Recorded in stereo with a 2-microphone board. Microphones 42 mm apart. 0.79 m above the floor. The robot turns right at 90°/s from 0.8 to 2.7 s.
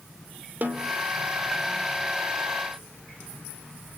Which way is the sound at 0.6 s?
45° right (ahead or behind).